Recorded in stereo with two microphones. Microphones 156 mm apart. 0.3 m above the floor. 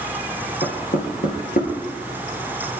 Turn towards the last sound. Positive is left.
turn(degrees=70)  # may be behind; listen again after turning